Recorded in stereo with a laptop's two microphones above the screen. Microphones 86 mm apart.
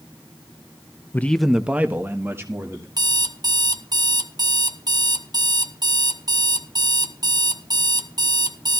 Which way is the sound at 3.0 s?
50° right (ahead or behind).